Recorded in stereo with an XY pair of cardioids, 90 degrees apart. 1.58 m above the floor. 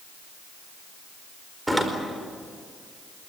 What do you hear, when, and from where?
1.7 s a door slam: 10° right, 4.5 m